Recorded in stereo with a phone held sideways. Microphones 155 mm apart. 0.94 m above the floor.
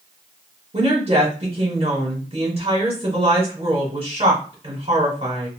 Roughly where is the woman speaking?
Right.